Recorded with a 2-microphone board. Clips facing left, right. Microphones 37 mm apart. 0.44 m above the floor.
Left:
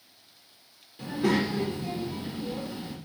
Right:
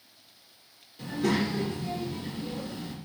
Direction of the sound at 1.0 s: 15° left (ahead or behind).